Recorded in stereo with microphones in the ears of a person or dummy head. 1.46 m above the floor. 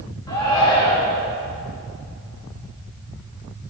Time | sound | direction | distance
0.3 | a shout | 20° left (ahead or behind) | 3.5 m